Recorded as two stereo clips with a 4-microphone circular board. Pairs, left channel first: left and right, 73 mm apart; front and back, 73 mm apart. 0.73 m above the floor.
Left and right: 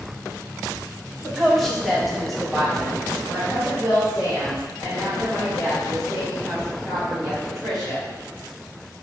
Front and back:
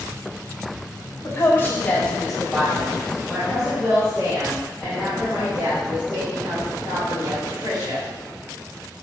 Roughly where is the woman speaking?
Ahead.